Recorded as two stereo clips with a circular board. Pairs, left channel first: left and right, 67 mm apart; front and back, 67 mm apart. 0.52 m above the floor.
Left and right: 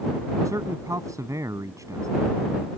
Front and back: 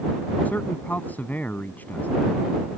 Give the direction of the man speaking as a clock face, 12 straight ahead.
2 o'clock.